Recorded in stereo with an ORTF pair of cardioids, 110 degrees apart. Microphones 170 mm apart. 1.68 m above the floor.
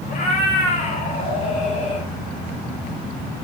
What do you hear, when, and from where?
0.1 s a cat meowing: 50° left, 4 m